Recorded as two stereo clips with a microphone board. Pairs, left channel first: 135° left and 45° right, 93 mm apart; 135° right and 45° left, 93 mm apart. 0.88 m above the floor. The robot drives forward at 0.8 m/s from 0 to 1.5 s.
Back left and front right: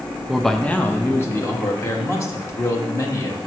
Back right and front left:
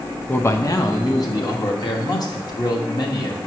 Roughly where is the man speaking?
Behind right.